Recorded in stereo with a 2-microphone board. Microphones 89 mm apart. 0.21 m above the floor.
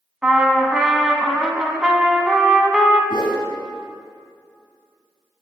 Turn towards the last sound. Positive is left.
turn(degrees=65)  # may be behind; listen again after turning